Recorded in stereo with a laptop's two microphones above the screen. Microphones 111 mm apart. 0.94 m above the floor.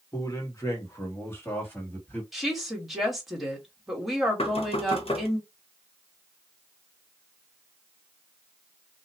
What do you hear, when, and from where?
0.1 s a man speaking: 35° left (ahead or behind), 1.5 m; by 2.2 s 15° left (ahead or behind), 2.5 m
2.3 s a woman speaking: centre (ahead or behind), 1.9 m
4.4 s knocking: 60° left (ahead or behind), 0.9 m